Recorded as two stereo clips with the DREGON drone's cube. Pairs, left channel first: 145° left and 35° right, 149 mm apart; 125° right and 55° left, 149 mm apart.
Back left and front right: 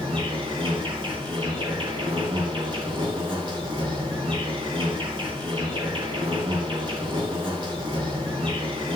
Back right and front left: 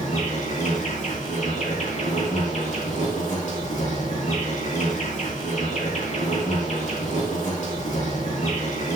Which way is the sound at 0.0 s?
90° right.